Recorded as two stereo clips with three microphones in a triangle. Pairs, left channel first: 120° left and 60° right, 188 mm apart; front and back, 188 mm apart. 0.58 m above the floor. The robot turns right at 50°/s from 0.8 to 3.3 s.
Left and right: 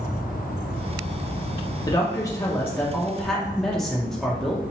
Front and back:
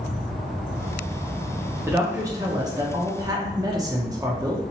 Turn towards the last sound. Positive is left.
turn(degrees=-155)